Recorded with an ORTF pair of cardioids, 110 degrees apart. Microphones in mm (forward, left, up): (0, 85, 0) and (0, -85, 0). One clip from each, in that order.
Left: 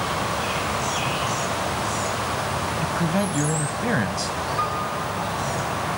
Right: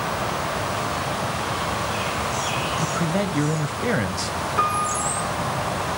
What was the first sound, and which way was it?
A man speaking, 5° right.